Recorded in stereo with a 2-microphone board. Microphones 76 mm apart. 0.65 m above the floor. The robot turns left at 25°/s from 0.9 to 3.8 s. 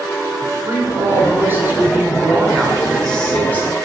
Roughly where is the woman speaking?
Behind right.